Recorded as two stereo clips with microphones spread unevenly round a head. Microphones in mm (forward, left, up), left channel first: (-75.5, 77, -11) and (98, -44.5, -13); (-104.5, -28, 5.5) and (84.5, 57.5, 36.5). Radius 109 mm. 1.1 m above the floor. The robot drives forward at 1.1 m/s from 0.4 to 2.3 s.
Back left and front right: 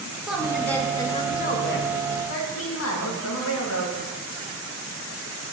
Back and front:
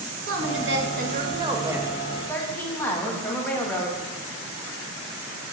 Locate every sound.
0.3 s a woman speaking: 55° left, 1.8 m; by 4.0 s 125° left, 1.8 m